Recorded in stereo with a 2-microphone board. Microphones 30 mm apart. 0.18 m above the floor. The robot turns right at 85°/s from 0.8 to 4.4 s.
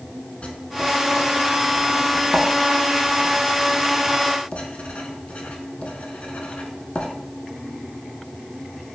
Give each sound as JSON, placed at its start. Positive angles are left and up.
{"t": 0.4, "sound": "writing", "side_deg": 45, "distance_m": 0.7}